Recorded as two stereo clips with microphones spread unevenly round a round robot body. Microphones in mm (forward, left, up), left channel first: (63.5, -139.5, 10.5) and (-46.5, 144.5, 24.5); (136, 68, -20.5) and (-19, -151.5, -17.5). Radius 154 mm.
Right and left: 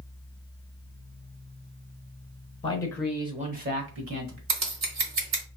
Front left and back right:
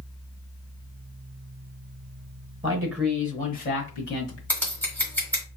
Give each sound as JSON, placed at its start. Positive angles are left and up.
{"t": 2.6, "sound": "a man speaking", "azimuth_deg": -95, "distance_m": 0.9}
{"t": 4.5, "sound": "scissors", "azimuth_deg": 135, "distance_m": 1.4}